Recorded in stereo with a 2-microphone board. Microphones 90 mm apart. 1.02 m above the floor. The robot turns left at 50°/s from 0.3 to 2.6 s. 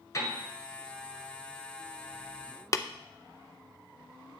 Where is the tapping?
35° left (ahead or behind), 0.5 m.